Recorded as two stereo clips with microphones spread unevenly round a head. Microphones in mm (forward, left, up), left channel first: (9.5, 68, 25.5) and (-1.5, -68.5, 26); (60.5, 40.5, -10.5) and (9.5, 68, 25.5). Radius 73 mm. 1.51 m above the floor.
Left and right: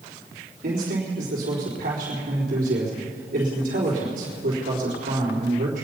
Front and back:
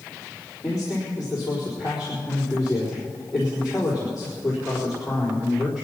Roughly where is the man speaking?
Behind right.